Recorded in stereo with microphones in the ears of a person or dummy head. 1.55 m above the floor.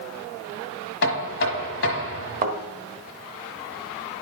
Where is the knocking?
75° left (ahead or behind), 1.3 m.